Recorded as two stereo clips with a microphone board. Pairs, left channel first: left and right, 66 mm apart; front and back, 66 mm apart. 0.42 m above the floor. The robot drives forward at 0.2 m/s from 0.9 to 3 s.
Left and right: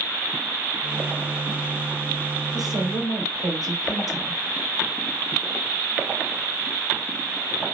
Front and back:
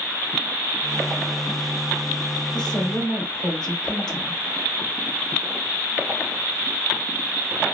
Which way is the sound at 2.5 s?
75° right.